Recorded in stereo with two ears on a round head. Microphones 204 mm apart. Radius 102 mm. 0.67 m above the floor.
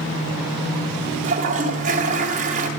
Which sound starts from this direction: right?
A toilet flushing, at 1.2 s.